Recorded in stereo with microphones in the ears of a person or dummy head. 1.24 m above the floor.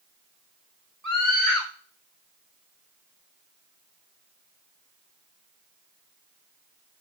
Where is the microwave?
I don't hear a microwave.